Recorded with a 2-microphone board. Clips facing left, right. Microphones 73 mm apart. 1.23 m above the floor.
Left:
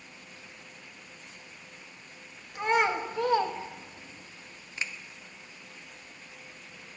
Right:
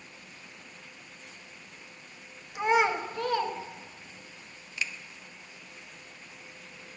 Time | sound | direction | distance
2.5 | a child speaking | 15° right (ahead or behind) | 0.9 m
4.8 | a finger snap | 30° left (ahead or behind) | 0.5 m